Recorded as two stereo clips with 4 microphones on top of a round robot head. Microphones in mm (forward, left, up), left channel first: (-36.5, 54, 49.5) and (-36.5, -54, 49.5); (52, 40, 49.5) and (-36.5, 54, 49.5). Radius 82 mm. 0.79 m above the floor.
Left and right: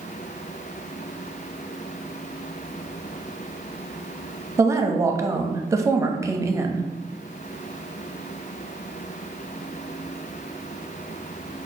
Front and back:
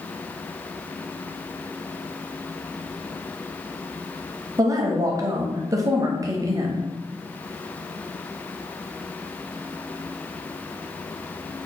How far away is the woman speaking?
About 0.8 m.